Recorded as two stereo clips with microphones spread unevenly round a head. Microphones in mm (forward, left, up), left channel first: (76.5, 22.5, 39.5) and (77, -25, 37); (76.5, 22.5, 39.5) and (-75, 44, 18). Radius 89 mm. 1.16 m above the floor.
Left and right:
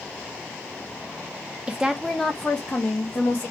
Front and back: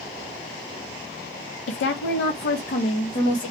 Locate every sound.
1.7 s a woman speaking: 20° right, 0.6 m; by 3.5 s 40° left, 1.2 m